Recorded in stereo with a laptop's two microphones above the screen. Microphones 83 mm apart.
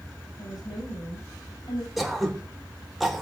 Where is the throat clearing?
5° right (ahead or behind), 3.5 m.